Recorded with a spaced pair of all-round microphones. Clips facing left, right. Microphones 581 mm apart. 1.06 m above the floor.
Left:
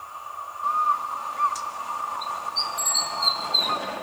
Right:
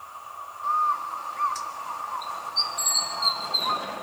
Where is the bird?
55° left (ahead or behind), 1.7 m.